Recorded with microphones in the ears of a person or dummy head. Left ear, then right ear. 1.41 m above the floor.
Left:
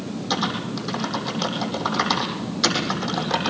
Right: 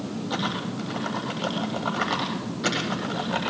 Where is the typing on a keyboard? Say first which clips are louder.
Left 5 dB; 80° left, 8.5 m.